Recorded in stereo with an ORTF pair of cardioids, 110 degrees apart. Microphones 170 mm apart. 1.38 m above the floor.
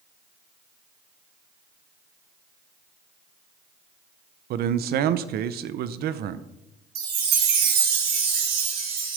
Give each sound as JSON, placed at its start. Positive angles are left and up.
{"t": 4.5, "sound": "a man speaking", "azimuth_deg": -65, "distance_m": 0.9}
{"t": 7.0, "sound": "a chime", "azimuth_deg": -65, "distance_m": 3.5}